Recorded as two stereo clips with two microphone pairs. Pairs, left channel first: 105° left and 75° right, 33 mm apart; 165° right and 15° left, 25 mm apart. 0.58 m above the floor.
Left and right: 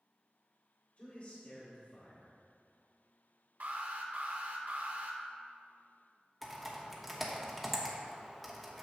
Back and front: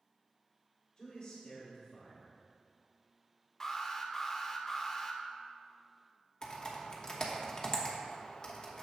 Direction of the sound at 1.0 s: 145° left.